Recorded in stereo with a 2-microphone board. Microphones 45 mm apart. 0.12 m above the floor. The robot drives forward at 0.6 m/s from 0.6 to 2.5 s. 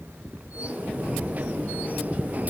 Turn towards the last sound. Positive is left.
turn(degrees=-25)  # may be behind; listen again after turning